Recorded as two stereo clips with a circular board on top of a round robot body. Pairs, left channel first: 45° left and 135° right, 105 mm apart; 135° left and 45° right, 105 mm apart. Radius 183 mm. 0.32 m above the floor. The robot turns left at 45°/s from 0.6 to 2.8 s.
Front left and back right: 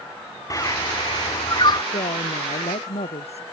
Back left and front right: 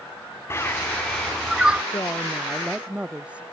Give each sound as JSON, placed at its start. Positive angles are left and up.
{"t": 0.5, "sound": "a bird", "azimuth_deg": 80}
{"t": 1.9, "sound": "a woman speaking", "azimuth_deg": 75}